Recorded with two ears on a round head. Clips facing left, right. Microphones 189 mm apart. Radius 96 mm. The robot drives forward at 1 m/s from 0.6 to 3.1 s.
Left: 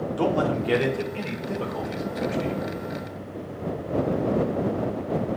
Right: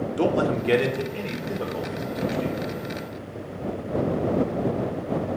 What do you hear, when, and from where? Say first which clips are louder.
0.2 s a man speaking: right 1 dB; 25° right (ahead or behind), 1.5 m; by 2.8 s 10° right (ahead or behind), 3.5 m